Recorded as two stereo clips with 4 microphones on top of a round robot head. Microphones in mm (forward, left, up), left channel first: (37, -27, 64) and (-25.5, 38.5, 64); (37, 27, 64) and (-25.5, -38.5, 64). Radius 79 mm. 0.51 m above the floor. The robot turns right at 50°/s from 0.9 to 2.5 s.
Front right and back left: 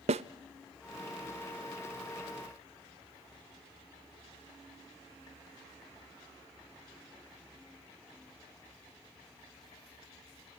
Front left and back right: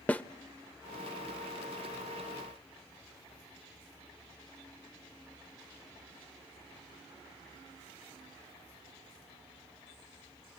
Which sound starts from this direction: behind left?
A snare drum, at 0.1 s.